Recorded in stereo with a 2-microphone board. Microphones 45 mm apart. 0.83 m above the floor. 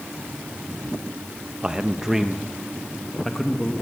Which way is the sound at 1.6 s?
20° right (ahead or behind).